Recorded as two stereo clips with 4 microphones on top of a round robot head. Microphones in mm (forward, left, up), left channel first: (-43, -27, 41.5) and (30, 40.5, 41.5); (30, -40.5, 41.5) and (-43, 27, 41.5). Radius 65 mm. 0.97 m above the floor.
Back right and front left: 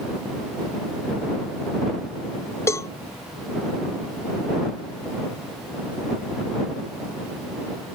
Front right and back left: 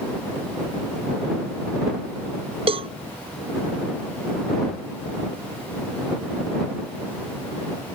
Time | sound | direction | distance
2.7 | a cowbell | 160° left | ?